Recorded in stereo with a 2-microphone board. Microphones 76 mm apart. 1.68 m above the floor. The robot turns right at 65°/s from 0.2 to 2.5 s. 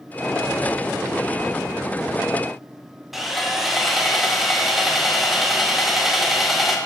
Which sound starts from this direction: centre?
Sawing, at 3.1 s.